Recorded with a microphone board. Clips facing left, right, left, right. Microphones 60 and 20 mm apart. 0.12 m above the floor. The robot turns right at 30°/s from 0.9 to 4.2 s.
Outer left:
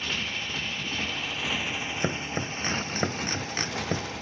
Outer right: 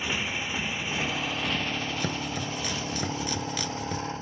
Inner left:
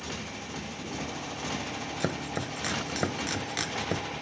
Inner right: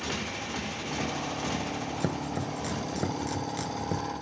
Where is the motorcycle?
15° right; by 4.2 s 85° left.